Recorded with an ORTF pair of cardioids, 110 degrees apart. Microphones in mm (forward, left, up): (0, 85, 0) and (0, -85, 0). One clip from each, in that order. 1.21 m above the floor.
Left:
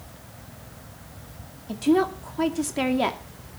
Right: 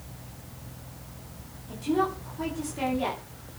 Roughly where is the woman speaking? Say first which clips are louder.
Left 5 dB; ahead left.